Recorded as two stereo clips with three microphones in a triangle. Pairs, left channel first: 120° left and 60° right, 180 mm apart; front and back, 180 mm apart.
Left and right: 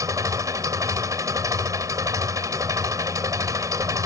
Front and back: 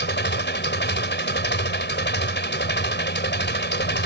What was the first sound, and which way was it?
An engine running, 10° left.